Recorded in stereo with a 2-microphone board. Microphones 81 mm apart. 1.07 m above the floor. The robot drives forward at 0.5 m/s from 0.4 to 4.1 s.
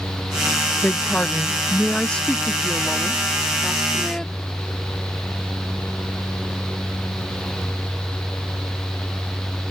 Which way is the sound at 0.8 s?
20° left (ahead or behind).